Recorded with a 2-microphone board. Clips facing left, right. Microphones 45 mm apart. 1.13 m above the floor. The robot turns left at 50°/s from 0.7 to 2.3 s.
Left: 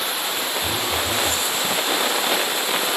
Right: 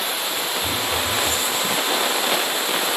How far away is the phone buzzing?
About 2 m.